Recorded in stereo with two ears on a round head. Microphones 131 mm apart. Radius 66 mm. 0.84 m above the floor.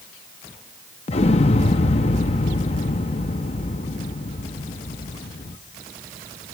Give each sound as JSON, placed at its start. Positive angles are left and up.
{"t": 1.1, "sound": "an explosion", "side_deg": 45, "distance_m": 0.6}